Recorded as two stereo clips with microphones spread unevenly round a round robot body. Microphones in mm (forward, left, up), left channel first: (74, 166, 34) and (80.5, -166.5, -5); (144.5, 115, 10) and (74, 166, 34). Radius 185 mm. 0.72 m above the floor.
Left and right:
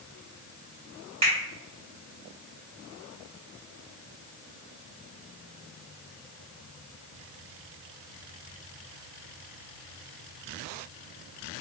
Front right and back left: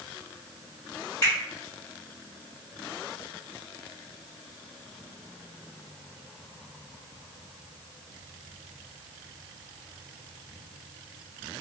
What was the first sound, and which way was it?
A finger snap, 160° right.